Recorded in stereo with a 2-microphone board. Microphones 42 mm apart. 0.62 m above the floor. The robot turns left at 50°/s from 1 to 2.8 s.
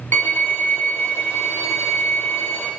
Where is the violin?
125° left, 2.5 m; by 2.7 s 40° left, 2.5 m.